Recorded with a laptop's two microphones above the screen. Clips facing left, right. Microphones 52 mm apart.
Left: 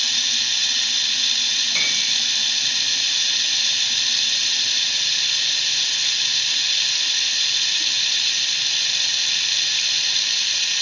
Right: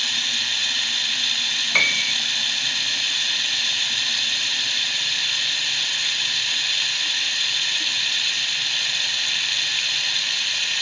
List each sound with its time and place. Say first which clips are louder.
0.0 s running water: even; 15° right (ahead or behind), 1.2 m
1.7 s a piano: right 8 dB; 80° right, 3.5 m